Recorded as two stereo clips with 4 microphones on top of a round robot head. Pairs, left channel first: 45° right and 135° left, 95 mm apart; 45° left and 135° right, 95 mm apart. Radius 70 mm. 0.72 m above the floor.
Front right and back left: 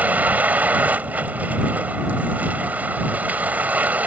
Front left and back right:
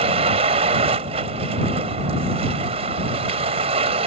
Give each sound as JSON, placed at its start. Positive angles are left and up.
{"t": 0.0, "sound": "a vehicle", "azimuth_deg": -150}